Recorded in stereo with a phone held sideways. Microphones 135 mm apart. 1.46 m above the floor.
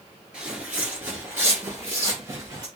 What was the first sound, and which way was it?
Footsteps, 10° right (ahead or behind).